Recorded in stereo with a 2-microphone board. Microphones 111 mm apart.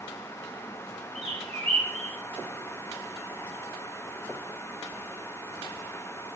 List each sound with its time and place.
1.1 s a bird: 65° right (ahead or behind), 0.7 m